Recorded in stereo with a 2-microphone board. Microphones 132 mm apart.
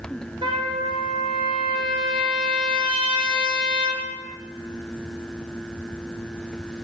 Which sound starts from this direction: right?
A trumpet, at 0.4 s.